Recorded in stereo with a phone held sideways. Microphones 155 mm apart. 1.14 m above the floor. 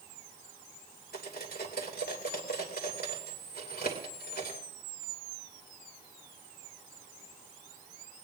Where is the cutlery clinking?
80° left, 2.5 m.